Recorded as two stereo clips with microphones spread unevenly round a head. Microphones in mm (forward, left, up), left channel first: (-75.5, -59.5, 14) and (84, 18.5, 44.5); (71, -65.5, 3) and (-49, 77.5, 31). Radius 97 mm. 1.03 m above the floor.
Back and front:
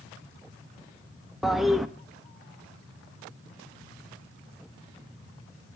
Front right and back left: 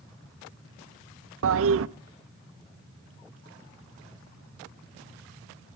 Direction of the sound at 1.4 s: 120° left.